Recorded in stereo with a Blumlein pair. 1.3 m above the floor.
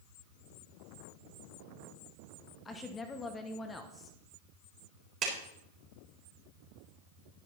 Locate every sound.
2.6 s a woman speaking: 15° left, 1.1 m
5.2 s a clap: 35° right, 4 m